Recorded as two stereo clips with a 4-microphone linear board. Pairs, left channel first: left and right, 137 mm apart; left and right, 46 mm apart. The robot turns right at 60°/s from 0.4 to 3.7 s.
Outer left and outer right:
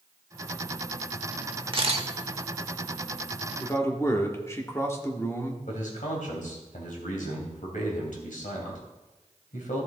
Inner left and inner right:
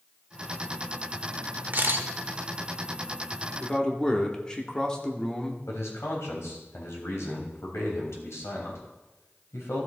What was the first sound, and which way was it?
A camera shutter, 40° right (ahead or behind).